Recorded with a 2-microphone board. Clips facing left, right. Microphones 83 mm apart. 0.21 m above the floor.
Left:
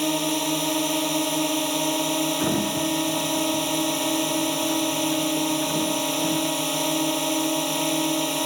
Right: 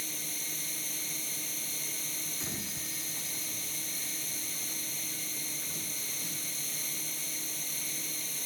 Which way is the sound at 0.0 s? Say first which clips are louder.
Left 22 dB; 70° left (ahead or behind).